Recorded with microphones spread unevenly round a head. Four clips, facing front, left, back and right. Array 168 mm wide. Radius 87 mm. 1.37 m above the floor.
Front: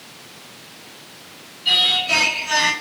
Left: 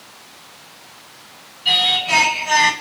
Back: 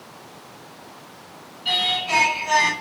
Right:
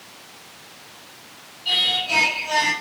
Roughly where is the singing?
Left.